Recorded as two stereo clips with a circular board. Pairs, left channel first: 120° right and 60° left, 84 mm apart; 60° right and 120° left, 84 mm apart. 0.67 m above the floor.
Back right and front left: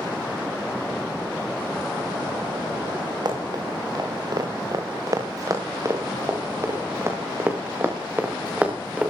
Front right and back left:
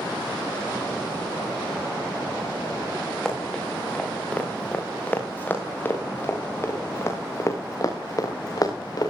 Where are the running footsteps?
20° left, 8 m; by 9.1 s 20° right, 7 m.